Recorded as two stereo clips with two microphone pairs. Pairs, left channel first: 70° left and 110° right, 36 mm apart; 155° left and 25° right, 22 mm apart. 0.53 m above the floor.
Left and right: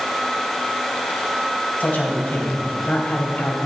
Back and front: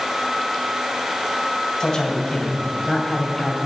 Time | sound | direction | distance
1.8 | a man speaking | 110° left | 2.5 m